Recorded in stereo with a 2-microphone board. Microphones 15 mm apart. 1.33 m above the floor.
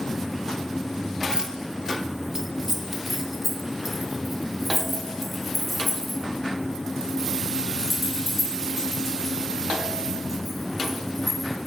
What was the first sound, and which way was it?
Keys jangling, 40° right (ahead or behind).